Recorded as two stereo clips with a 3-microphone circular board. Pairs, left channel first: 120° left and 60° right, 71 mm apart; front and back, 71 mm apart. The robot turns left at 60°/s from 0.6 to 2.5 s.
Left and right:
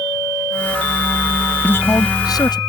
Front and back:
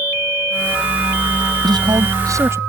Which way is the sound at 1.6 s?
175° right.